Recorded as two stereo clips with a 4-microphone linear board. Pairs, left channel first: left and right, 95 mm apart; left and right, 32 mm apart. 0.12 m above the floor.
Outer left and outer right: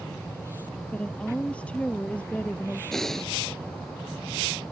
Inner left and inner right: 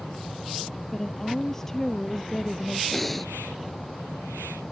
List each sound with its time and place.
0.9 s a woman speaking: 15° left (ahead or behind)
2.9 s breathing: 5° left (ahead or behind)